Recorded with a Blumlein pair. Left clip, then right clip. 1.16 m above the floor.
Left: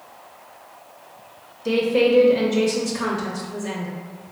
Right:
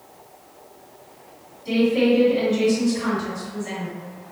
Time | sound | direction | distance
1.6 | a woman speaking | 40° left | 0.8 m